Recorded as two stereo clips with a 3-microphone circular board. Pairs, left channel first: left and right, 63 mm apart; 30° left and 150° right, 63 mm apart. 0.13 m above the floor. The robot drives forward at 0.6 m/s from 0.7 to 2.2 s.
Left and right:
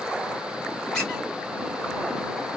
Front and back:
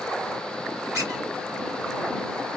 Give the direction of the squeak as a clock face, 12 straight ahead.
6 o'clock.